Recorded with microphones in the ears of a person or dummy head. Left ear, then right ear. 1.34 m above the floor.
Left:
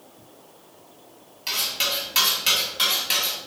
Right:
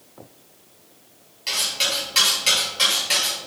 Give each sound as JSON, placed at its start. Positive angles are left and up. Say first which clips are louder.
{"t": 1.5, "sound": "cutlery clinking", "louder": "right 2 dB", "side_deg": 10, "distance_m": 1.8}